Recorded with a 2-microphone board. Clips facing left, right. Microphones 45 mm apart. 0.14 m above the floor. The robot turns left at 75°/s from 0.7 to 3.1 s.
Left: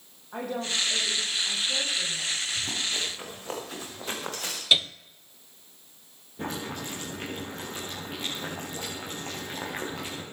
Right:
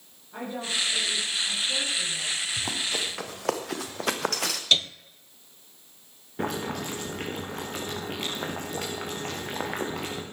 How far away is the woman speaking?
About 6.5 m.